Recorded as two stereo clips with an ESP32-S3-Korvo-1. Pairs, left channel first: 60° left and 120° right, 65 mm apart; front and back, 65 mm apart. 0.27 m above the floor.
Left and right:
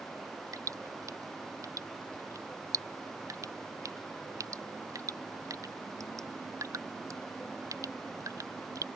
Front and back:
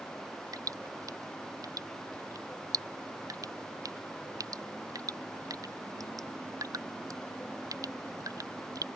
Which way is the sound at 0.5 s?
155° right.